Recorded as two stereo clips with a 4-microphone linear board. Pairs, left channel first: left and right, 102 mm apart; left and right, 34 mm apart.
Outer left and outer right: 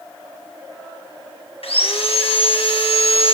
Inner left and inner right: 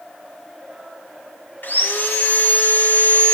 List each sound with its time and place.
1.6 s sawing: 65° left (ahead or behind), 1.3 m